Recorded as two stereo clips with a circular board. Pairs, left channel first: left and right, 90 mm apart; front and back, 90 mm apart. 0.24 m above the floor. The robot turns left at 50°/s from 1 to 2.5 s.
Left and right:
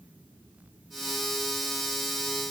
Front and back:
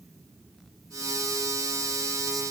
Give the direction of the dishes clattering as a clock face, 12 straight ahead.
No dishes clattering in this recording.